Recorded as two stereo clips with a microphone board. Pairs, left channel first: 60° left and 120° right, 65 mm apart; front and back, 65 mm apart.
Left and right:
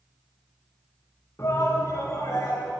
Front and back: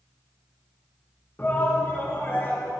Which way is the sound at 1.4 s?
40° left.